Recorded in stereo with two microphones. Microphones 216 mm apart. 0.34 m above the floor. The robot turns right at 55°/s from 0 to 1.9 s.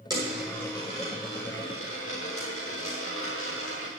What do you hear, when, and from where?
0.1 s a dropped coin: 20° right, 4.5 m; by 3.9 s 80° left, 4.5 m